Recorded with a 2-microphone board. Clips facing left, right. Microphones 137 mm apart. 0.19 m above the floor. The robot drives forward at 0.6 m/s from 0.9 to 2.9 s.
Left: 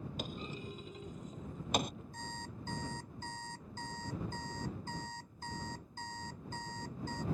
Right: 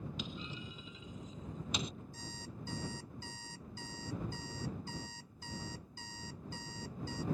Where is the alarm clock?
55° left (ahead or behind); by 7.2 s 50° left (ahead or behind).